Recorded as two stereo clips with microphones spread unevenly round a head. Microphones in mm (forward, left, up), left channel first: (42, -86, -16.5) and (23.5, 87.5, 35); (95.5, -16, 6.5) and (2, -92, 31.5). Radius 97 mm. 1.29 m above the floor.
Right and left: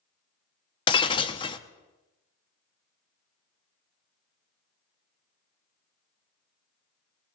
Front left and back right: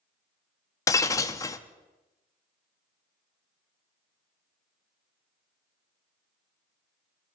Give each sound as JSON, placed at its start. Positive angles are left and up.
{"t": 0.9, "sound": "breaking glass", "azimuth_deg": -20, "distance_m": 0.7}